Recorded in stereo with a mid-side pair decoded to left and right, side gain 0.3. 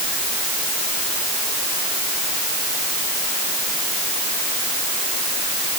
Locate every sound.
Only background noise.